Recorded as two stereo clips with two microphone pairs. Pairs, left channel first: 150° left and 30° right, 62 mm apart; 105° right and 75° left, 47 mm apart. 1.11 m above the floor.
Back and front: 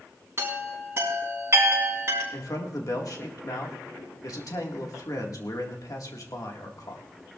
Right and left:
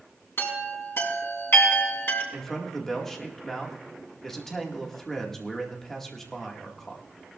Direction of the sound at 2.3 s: 175° left.